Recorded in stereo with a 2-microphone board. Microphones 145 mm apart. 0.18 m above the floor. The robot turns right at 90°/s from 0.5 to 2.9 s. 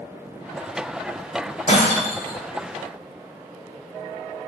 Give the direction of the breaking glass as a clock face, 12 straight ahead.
11 o'clock.